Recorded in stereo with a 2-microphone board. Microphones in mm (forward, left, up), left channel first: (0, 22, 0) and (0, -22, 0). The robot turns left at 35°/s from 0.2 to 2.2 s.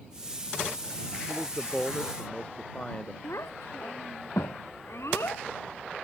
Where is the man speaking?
175° right; by 3.1 s 155° left.